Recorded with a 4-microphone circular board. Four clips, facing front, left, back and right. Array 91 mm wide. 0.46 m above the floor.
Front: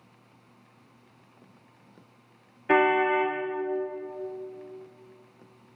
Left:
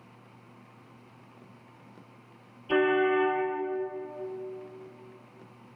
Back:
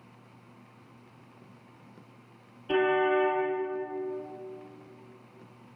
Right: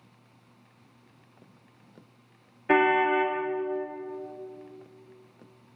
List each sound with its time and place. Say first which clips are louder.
2.7 s a car horn: right 2 dB, front 3 dB; 55° right, 5.5 m